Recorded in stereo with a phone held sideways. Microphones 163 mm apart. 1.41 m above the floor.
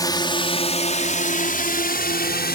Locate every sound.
0.0 s a drone: 25° left (ahead or behind); by 2.5 s 75° left (ahead or behind)